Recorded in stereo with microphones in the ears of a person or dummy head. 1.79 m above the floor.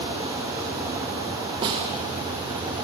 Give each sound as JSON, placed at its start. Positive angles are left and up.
{"t": 1.6, "sound": "a snare drum", "side_deg": -25, "distance_m": 0.6}